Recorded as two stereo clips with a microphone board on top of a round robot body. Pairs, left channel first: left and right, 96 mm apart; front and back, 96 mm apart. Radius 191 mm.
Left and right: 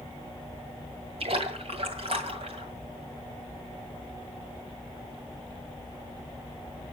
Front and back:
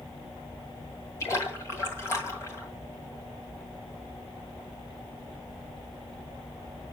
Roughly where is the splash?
Ahead right.